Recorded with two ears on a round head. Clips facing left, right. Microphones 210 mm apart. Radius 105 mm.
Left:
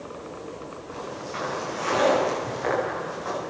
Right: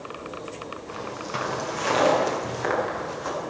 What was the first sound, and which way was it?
Footsteps, 55° right (ahead or behind).